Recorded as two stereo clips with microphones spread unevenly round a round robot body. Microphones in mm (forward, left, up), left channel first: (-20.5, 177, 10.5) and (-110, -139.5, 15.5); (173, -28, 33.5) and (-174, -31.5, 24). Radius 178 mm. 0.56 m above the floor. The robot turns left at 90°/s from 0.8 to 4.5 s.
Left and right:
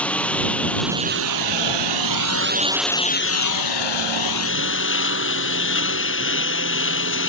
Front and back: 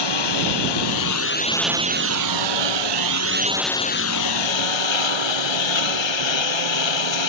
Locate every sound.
0.0 s a lawn mower: 15° right; by 7.3 s 15° left